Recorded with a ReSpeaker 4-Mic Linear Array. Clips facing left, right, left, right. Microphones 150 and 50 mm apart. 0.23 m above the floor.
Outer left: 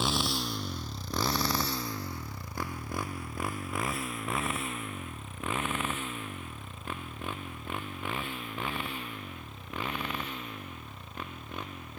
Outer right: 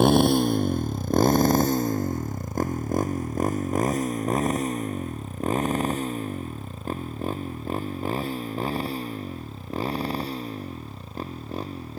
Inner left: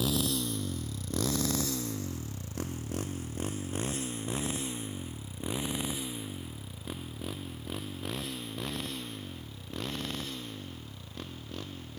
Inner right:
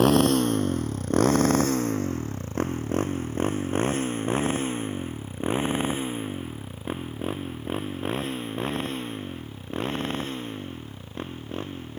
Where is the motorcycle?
55° right (ahead or behind); by 12.0 s 35° right (ahead or behind).